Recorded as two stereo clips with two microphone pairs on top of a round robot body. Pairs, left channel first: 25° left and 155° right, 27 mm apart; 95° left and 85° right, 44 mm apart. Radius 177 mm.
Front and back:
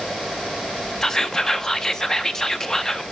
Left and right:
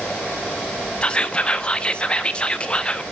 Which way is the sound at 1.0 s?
45° left.